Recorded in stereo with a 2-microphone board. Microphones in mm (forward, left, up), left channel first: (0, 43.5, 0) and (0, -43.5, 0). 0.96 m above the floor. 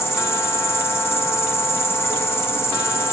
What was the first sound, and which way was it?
An insect, 30° left (ahead or behind).